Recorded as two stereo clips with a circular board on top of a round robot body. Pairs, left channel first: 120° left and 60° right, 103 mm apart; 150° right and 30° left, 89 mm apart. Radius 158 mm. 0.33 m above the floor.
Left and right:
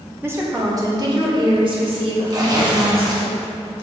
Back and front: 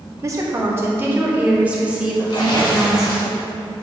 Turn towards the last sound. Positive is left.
turn(degrees=-110)